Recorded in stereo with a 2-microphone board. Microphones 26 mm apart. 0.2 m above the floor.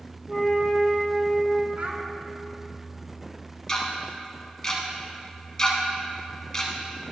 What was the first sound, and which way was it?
A flute, 5° left (ahead or behind).